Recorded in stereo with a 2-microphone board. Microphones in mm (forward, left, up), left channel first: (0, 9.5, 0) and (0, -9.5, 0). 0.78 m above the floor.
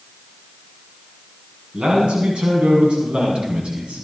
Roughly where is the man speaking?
Right.